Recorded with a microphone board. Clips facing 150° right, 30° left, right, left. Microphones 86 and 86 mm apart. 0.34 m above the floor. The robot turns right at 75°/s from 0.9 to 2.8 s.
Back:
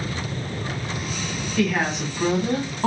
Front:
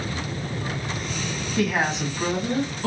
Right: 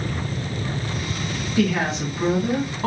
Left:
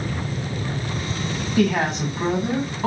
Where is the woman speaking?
95° left, 2.5 m; by 2.9 s 170° right, 2.5 m.